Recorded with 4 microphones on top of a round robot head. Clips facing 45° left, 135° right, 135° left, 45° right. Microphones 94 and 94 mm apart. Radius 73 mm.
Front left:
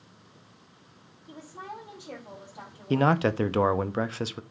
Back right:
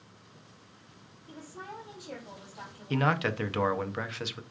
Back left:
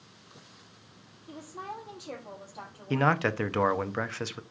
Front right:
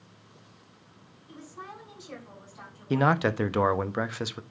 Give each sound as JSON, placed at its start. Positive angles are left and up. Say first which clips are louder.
{"t": 1.3, "sound": "a woman speaking", "louder": "front left 3 dB, back left 3 dB", "azimuth_deg": 110, "distance_m": 6.0}
{"t": 2.9, "sound": "a man speaking", "louder": "front left 5 dB, front right 2 dB", "azimuth_deg": 25, "distance_m": 0.6}